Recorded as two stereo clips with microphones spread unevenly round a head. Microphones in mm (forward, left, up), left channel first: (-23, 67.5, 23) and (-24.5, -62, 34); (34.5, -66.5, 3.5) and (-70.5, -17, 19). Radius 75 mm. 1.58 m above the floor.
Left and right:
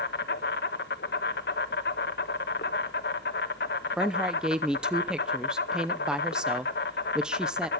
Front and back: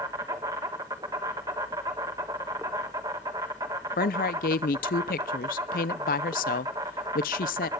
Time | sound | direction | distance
0.0 | an insect | 90° left | 1.2 m
4.0 | a woman speaking | 5° right | 0.6 m